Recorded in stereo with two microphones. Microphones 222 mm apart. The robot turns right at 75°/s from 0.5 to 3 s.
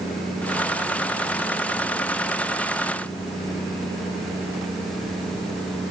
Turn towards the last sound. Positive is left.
No sound to turn to.